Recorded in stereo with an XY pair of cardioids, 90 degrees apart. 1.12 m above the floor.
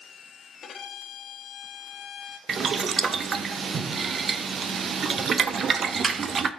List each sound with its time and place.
0.6 s a violin: 65° left, 1.0 m
2.5 s boiling: 50° right, 0.7 m